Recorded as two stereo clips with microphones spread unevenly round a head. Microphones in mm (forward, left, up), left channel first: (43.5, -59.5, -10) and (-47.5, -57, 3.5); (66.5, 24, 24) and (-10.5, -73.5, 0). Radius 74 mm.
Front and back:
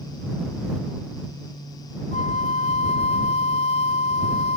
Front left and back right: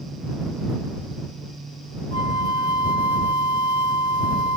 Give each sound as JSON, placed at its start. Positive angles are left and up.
{"t": 2.1, "sound": "a flute", "azimuth_deg": 0}